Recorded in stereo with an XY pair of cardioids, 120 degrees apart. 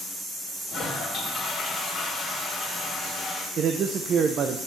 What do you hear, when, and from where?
0.7 s a toilet flushing: 40° left, 3.5 m
3.6 s a man speaking: 50° right, 0.8 m